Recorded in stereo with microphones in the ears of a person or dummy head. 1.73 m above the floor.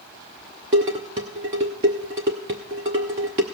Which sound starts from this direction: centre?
Dishes clattering, at 0.7 s.